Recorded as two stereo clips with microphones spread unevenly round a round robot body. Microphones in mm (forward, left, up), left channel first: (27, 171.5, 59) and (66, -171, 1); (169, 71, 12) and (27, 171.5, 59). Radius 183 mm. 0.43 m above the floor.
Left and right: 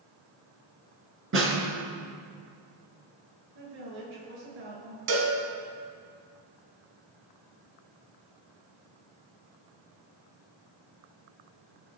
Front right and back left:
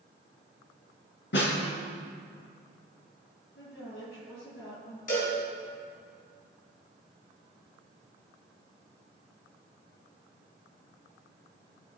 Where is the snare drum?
30° right, 4 m.